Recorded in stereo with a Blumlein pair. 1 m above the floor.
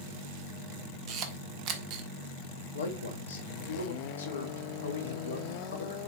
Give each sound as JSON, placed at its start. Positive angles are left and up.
{"t": 1.1, "sound": "a camera shutter", "azimuth_deg": -40, "distance_m": 1.2}
{"t": 2.7, "sound": "a man speaking", "azimuth_deg": 70, "distance_m": 1.9}